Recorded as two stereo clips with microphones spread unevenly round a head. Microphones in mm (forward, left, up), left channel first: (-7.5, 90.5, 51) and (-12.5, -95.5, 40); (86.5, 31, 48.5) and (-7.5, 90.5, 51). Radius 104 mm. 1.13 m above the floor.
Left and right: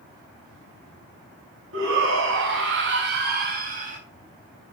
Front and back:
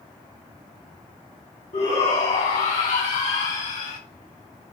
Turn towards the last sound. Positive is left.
turn(degrees=-40)